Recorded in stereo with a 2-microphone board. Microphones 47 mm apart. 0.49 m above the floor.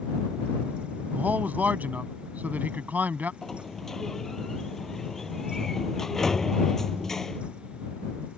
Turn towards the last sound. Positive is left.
turn(degrees=10)  # may be behind; listen again after turning